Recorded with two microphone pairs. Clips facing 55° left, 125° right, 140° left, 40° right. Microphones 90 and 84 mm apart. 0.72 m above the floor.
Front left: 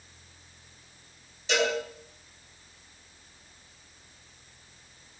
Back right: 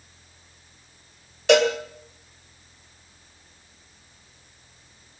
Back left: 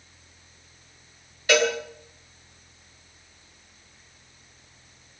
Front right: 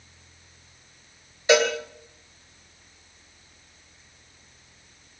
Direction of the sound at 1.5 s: 105° right.